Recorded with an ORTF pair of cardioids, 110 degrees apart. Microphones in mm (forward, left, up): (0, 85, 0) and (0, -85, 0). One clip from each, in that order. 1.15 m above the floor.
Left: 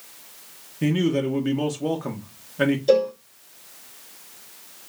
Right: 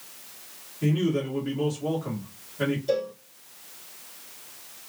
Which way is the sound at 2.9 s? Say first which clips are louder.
Left 10 dB; 45° left.